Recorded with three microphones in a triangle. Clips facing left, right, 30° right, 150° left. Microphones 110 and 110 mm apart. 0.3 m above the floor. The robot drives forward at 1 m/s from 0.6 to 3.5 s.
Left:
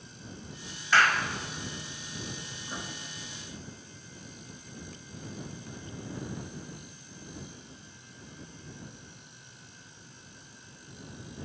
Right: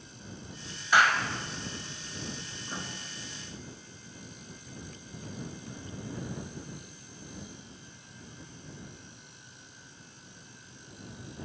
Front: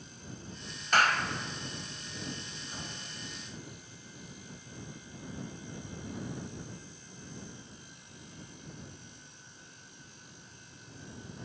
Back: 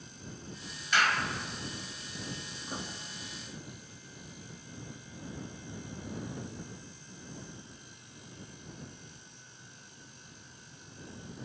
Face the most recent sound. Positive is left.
turn(degrees=180)